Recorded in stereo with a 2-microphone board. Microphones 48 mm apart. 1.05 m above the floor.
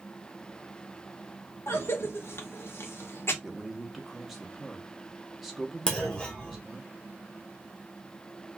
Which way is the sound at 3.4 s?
5° right (ahead or behind).